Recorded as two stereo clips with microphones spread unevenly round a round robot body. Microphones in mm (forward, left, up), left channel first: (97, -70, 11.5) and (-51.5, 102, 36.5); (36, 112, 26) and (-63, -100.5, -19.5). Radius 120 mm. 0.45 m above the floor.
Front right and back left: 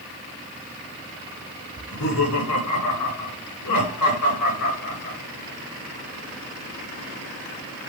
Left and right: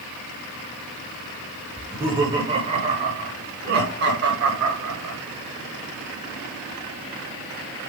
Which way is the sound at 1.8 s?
35° right.